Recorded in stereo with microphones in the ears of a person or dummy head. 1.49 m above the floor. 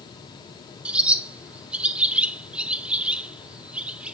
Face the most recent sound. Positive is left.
turn(degrees=-10)  # may be behind; listen again after turning